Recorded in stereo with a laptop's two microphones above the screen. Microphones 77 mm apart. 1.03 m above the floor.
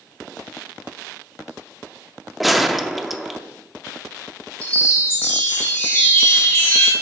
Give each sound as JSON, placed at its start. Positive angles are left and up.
{"t": 2.4, "sound": "a gunshot", "side_deg": 0, "distance_m": 0.6}
{"t": 4.6, "sound": "a chime", "side_deg": 25, "distance_m": 2.0}